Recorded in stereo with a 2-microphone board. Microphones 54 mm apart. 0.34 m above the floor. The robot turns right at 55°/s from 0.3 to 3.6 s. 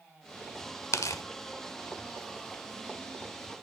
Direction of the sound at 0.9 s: 80° left.